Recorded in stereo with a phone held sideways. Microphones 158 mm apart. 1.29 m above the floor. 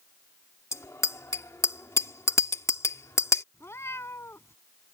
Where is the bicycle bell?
20° left (ahead or behind).